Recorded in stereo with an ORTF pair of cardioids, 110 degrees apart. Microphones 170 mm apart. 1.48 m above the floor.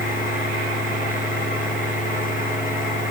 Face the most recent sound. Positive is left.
turn(degrees=55)